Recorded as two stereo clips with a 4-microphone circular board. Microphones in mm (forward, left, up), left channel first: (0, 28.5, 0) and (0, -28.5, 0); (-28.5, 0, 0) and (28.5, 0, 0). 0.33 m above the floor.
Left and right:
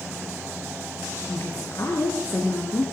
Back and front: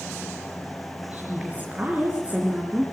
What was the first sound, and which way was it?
A woman speaking, 65° left.